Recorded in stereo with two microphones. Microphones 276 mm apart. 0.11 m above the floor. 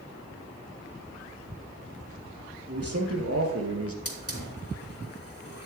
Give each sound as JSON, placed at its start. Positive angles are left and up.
{"t": 2.7, "sound": "a man speaking", "side_deg": -60, "distance_m": 3.0}
{"t": 4.0, "sound": "a hiss", "side_deg": 55, "distance_m": 3.0}